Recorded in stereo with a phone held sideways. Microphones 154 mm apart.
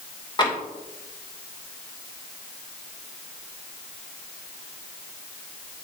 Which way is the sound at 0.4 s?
30° left (ahead or behind).